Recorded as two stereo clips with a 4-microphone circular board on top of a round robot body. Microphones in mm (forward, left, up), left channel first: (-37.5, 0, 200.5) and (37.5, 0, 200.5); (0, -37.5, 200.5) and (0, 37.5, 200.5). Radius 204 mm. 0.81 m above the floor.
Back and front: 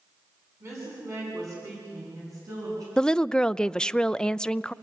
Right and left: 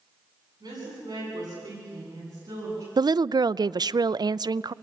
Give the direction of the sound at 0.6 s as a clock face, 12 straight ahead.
10 o'clock.